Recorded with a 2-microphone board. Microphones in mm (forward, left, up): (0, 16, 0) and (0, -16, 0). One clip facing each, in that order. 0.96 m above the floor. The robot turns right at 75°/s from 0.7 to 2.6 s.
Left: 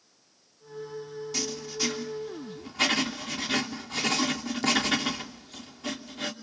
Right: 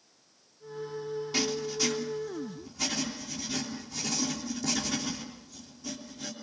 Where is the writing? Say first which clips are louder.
Right 3 dB; 25° right, 3 m; by 6.3 s 70° left, 3 m.